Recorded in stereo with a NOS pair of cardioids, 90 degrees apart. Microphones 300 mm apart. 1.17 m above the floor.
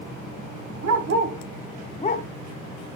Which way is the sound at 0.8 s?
65° right.